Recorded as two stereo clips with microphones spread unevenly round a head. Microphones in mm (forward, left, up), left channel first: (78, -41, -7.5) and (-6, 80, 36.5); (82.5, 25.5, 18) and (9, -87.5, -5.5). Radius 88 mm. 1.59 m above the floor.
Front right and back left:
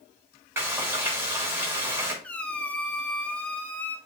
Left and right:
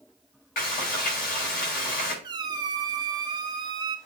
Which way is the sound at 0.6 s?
55° left.